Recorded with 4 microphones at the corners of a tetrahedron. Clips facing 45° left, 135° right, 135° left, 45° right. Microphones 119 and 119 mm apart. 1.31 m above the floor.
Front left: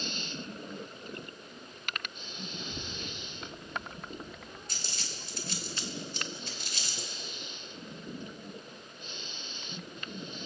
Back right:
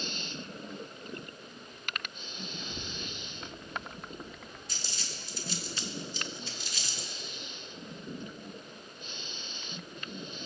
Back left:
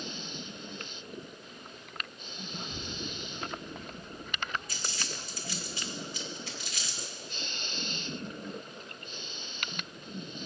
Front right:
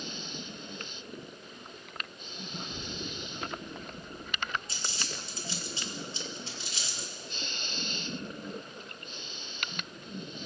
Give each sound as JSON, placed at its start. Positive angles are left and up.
{"t": 2.5, "sound": "a child speaking", "azimuth_deg": 110, "distance_m": 3.0}
{"t": 4.7, "sound": "crumpling", "azimuth_deg": 15, "distance_m": 2.0}